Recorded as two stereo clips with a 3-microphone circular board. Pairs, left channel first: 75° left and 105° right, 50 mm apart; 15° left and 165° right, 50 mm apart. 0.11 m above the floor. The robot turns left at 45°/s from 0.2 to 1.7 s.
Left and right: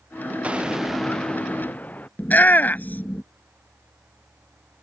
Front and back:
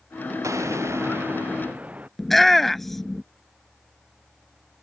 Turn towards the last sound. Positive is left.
turn(degrees=100)